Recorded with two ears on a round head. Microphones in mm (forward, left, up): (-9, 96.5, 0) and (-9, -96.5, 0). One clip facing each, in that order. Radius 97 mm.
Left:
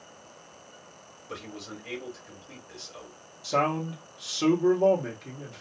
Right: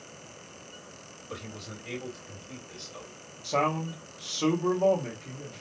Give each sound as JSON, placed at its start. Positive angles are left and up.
{"t": 1.3, "sound": "a man speaking", "side_deg": 15, "distance_m": 1.9}
{"t": 3.4, "sound": "a man speaking", "side_deg": 15, "distance_m": 1.0}